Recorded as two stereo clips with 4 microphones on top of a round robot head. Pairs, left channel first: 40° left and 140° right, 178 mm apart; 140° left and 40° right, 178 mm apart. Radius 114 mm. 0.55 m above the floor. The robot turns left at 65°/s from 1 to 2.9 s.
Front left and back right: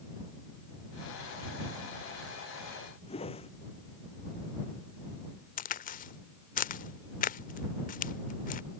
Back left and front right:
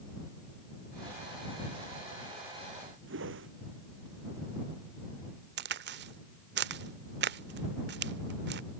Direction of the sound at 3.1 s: 20° right.